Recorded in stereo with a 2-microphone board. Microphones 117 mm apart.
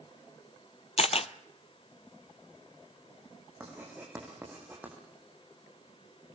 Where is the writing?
15° right (ahead or behind), 6 m.